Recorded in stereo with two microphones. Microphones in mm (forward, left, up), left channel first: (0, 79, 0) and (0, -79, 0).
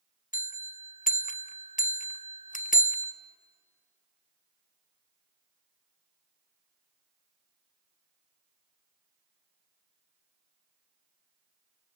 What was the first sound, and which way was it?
A bell, 55° left (ahead or behind).